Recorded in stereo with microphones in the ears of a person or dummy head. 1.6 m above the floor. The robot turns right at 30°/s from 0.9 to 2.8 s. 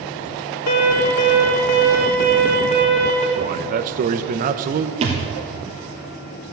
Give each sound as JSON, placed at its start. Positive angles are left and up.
{"t": 0.7, "sound": "an alarm", "azimuth_deg": 90, "distance_m": 2.5}
{"t": 3.4, "sound": "a man speaking", "side_deg": -50, "distance_m": 1.1}
{"t": 5.0, "sound": "a thud", "side_deg": -40, "distance_m": 3.0}